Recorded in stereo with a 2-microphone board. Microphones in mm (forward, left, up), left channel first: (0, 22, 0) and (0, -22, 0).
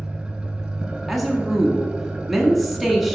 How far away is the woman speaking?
About 1.2 m.